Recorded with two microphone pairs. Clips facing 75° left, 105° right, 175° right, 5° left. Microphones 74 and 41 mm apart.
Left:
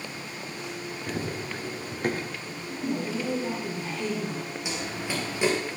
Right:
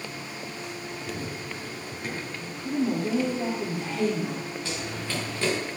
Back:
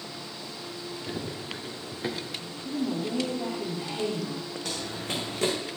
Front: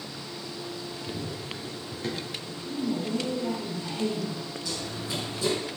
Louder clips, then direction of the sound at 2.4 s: Right 6 dB, back 1 dB; 130° right.